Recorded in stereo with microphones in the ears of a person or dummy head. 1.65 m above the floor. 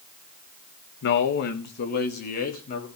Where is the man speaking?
65° left (ahead or behind), 1.4 m; by 2.9 s 45° left (ahead or behind), 3 m.